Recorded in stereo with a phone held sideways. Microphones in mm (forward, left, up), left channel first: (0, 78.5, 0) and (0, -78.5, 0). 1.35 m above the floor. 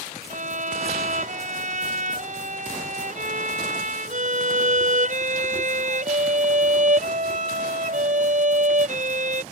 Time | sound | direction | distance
0.3 | a violin | 55° right (ahead or behind) | ?